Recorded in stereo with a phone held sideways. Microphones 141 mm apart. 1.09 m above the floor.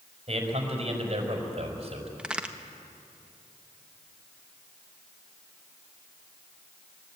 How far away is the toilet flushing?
No toilet flushing in this recording.